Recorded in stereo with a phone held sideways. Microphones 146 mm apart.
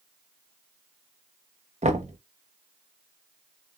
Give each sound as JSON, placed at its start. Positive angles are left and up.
{"t": 1.8, "sound": "knocking", "side_deg": -55, "distance_m": 0.9}